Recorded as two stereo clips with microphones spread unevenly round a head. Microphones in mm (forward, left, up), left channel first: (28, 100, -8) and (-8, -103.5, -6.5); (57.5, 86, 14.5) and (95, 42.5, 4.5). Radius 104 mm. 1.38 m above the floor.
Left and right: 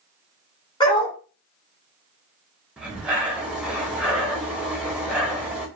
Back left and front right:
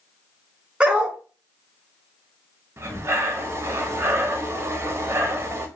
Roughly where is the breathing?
Ahead.